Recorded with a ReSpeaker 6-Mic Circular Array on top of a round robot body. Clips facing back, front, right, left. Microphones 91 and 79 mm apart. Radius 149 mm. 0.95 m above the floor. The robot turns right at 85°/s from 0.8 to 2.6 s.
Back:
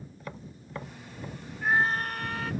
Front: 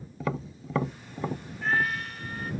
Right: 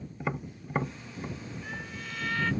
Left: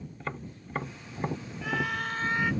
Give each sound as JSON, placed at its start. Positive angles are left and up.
{"t": 0.2, "sound": "tapping", "azimuth_deg": -10}
{"t": 1.6, "sound": "a scream", "azimuth_deg": 95}